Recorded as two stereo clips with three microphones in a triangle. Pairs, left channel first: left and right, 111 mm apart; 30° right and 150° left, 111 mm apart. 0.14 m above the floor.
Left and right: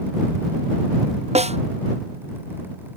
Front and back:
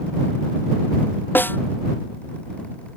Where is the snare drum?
105° right.